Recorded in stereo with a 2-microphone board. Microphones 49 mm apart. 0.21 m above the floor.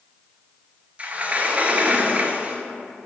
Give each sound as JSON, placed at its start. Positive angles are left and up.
{"t": 1.0, "sound": "a sliding door", "side_deg": -30, "distance_m": 0.7}